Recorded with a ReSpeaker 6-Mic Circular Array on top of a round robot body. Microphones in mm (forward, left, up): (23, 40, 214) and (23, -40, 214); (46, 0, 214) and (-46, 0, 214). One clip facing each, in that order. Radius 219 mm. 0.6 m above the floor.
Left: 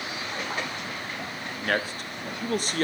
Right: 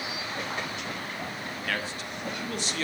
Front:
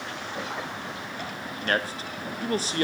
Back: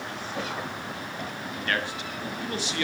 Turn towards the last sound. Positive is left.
turn(degrees=50)